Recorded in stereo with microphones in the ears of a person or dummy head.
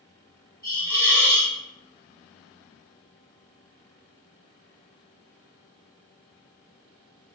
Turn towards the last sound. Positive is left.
turn(degrees=15)  # may be behind; listen again after turning